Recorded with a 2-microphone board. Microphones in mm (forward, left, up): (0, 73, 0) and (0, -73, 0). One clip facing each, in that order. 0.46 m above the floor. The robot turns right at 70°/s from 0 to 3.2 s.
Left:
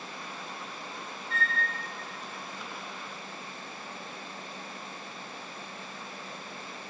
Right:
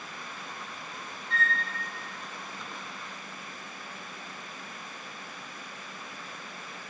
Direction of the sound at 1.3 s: 10° left (ahead or behind).